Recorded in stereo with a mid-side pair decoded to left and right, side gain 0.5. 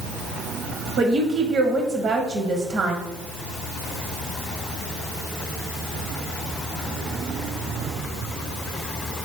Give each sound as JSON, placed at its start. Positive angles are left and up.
{"t": 1.0, "sound": "a woman speaking", "azimuth_deg": -55, "distance_m": 0.9}